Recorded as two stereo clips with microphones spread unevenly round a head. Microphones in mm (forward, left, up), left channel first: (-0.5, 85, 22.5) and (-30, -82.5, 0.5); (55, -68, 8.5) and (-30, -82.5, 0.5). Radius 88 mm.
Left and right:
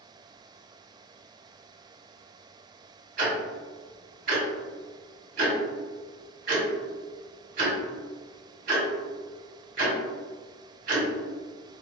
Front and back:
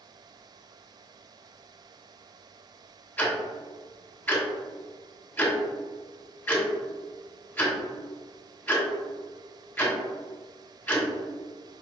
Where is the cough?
I don't hear a cough.